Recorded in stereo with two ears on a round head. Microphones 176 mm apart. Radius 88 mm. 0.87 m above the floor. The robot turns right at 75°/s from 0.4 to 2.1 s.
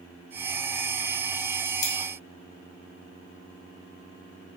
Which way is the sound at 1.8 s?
55° left (ahead or behind).